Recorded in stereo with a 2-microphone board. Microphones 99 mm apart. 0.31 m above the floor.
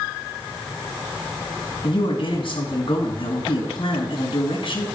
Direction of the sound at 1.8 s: 60° left (ahead or behind).